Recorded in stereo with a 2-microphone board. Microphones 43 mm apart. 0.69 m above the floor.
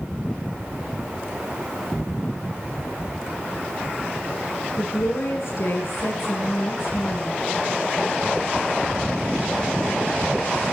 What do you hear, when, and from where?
4.8 s a woman speaking: 75° left (ahead or behind), 9.5 m